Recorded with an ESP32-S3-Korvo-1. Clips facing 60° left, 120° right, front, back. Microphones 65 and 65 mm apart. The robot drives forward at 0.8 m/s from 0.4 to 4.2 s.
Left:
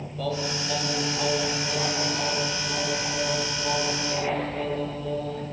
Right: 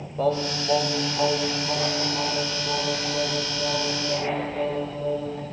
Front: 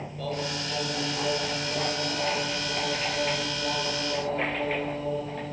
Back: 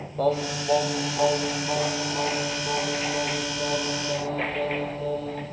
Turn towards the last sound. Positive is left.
turn(degrees=-175)